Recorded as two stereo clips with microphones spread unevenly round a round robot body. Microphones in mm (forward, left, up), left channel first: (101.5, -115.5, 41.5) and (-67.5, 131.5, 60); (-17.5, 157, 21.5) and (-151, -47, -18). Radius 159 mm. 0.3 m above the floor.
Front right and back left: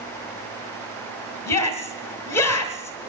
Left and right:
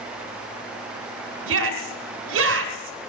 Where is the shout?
135° right, 1.6 m.